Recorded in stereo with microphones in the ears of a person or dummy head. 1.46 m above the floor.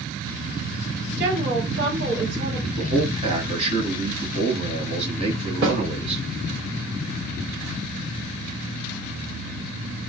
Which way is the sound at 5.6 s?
60° right (ahead or behind).